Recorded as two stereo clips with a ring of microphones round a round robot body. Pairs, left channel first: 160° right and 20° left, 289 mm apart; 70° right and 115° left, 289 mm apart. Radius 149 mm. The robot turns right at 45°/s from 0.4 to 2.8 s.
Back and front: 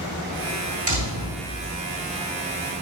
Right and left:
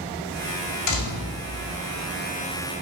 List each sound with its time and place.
0.9 s a door slam: 45° right, 3 m; by 1.4 s 20° right, 3 m